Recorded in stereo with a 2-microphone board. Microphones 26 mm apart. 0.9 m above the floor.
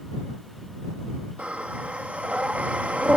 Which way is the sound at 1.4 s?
65° right (ahead or behind).